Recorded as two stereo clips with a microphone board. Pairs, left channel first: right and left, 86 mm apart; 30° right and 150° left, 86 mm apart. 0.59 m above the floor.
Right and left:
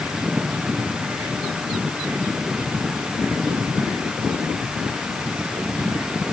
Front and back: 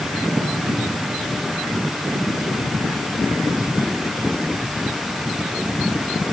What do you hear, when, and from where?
Only background noise.